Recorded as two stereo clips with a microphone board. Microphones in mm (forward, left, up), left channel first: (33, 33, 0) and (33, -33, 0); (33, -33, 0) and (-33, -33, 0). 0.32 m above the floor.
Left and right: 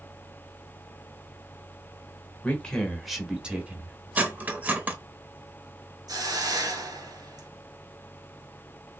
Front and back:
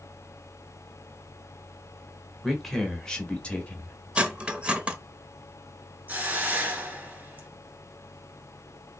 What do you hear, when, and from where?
2.4 s a man speaking: 90° left, 1.0 m; by 4.0 s 50° right, 1.1 m
4.2 s cutlery clinking: 125° right, 0.6 m
6.1 s a hiss: 115° right, 1.2 m